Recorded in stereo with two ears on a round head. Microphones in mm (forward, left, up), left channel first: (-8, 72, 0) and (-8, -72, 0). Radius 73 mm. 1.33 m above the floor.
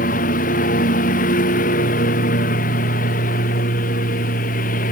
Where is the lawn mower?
55° left (ahead or behind).